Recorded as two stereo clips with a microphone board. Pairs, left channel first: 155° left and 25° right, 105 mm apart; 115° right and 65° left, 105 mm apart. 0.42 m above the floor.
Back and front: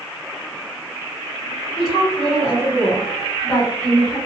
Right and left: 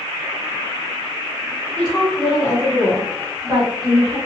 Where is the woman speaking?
Straight behind, 1.2 m; by 4.2 s 70° left, 1.6 m.